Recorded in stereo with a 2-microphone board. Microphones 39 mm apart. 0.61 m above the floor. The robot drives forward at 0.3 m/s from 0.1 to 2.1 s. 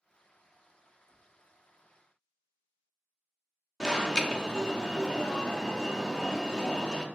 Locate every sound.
1.1 s tapping: 40° left (ahead or behind), 1.1 m
3.8 s an alarm: 20° left (ahead or behind), 0.5 m